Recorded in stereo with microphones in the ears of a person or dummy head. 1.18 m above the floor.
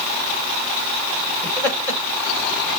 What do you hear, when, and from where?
1.4 s laughter: 10° left (ahead or behind), 3.5 m